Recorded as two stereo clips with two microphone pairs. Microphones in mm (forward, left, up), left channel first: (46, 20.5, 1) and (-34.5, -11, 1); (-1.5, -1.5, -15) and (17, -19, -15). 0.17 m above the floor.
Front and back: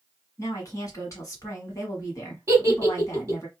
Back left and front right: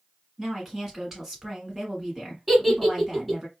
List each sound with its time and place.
0.4 s a woman speaking: 30° left, 1.5 m
2.5 s a giggle: 130° right, 1.1 m